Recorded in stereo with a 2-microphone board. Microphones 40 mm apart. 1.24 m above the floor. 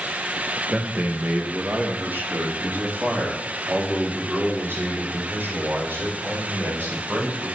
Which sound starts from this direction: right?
A man speaking, at 0.7 s.